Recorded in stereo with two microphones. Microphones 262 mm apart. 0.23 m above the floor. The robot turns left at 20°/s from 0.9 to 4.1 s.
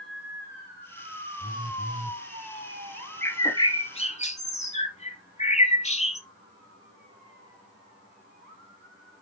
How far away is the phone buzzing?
About 0.9 m.